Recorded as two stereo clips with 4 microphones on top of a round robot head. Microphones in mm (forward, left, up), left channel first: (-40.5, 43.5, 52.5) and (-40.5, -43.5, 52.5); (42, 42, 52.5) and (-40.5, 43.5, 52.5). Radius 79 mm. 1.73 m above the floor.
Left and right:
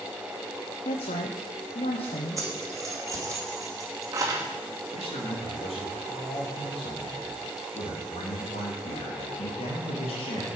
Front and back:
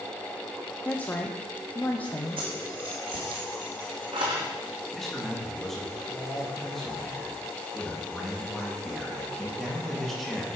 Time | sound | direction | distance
0.8 | a woman speaking | 70° left | 1.0 m
2.4 | keys jangling | 140° right | 2.5 m
4.9 | a man speaking | 85° left | 3 m